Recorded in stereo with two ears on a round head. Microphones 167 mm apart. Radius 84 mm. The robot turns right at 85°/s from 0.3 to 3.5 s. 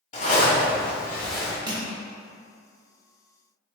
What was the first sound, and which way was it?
A zipper, 90° left.